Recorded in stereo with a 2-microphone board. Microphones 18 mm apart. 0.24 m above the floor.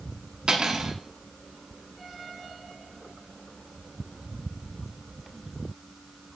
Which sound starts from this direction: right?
Cutlery clinking, at 0.5 s.